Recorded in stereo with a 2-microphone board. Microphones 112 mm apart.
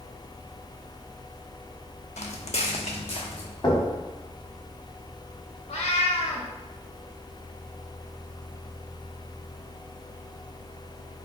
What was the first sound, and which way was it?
Footsteps, 75° left (ahead or behind).